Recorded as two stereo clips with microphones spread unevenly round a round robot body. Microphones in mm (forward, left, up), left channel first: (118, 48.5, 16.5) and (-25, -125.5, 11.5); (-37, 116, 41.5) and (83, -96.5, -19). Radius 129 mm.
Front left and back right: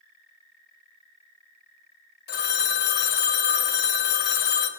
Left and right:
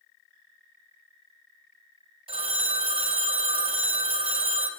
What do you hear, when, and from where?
2.3 s a phone ringing: 5° left, 1.2 m